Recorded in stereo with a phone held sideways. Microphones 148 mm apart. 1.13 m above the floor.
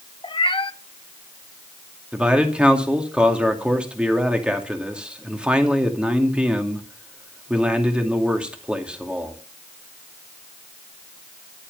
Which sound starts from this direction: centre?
A man speaking, at 2.1 s.